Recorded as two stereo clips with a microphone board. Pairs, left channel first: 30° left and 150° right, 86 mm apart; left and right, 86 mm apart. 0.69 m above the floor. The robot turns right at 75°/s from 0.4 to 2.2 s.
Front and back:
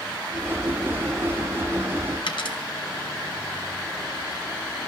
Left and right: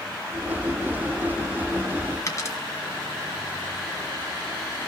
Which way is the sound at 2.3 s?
40° left.